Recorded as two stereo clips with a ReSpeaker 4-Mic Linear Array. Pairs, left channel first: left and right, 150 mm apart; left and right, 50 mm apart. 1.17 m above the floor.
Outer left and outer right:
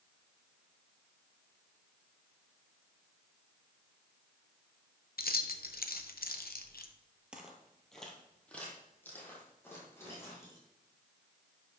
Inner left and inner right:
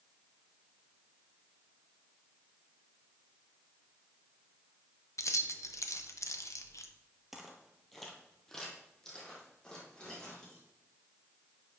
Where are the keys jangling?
90° left, 0.6 m.